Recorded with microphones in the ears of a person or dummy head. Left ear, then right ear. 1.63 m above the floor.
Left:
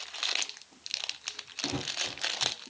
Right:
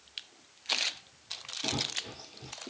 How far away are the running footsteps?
About 2 m.